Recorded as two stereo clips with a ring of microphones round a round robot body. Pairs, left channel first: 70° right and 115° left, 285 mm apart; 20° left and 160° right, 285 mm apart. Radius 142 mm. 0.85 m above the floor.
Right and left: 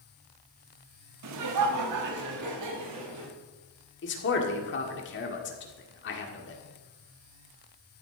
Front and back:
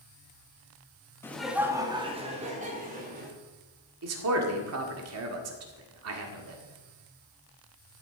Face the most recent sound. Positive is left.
turn(degrees=-120)